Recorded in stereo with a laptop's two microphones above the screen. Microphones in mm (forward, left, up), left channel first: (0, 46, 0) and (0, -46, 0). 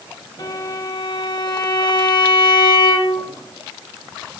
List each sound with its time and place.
0.4 s a violin: 45° left (ahead or behind), 2 m